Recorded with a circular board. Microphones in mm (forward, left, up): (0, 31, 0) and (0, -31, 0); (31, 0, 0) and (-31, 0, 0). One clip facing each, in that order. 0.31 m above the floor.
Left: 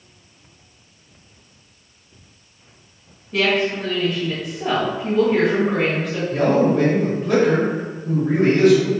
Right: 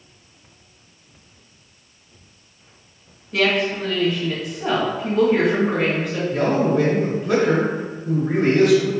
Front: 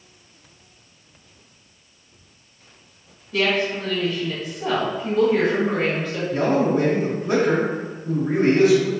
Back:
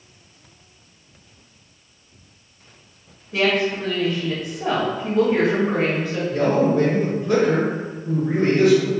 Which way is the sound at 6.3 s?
20° right.